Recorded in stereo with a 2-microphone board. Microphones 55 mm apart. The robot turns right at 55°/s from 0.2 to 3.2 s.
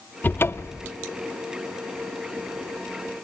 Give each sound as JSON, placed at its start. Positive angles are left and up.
{"t": 0.2, "sound": "a cupboard door", "azimuth_deg": 35, "distance_m": 0.6}